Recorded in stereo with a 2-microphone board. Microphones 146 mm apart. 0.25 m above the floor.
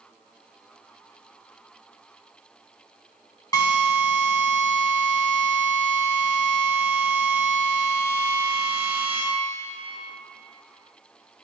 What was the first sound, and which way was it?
A drill, 25° left (ahead or behind).